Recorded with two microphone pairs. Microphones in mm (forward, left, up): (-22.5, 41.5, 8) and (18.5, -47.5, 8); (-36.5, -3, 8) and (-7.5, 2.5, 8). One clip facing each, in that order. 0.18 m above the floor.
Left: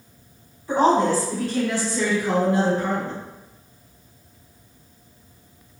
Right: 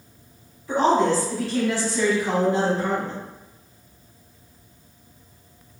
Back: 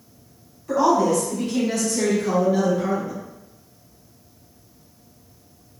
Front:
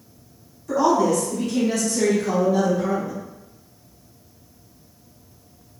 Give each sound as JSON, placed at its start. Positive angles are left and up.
{"t": 0.7, "sound": "a woman speaking", "azimuth_deg": 140, "distance_m": 1.0}